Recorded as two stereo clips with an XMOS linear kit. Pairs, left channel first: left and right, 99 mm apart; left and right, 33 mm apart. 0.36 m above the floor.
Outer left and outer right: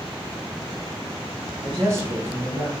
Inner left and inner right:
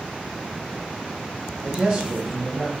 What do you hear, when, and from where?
1.6 s a man speaking: 35° right (ahead or behind), 2 m; by 2.7 s 10° right (ahead or behind), 1.8 m